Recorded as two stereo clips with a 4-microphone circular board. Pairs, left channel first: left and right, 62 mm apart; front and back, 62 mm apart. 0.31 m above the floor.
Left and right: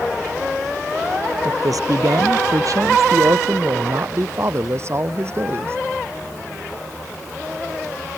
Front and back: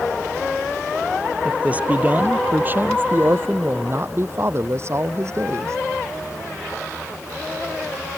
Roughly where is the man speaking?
Right.